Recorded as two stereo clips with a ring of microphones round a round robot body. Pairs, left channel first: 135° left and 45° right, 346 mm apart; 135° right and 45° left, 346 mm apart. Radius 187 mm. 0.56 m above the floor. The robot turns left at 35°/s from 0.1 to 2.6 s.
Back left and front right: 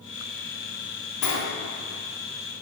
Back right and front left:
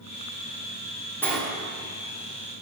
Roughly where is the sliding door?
Behind left.